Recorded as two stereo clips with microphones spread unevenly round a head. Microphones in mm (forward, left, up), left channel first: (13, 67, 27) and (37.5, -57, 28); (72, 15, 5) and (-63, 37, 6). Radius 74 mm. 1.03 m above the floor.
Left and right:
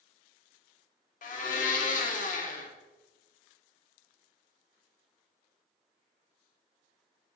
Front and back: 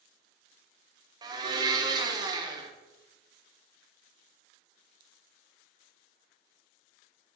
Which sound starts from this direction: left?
A blender, at 1.2 s.